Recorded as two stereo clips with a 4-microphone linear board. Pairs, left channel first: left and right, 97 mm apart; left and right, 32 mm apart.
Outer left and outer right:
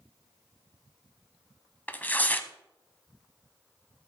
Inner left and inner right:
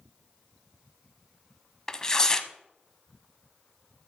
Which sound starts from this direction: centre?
Tearing paper, at 1.9 s.